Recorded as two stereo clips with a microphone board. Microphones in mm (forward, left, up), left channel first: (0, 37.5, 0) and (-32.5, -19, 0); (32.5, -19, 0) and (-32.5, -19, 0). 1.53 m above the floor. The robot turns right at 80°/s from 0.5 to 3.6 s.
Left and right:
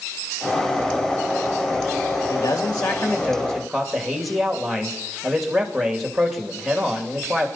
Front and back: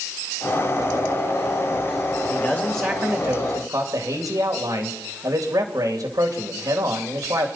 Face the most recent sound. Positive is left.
turn(degrees=150)